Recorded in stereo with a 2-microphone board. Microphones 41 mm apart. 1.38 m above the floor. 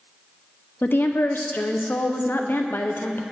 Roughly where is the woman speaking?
Left.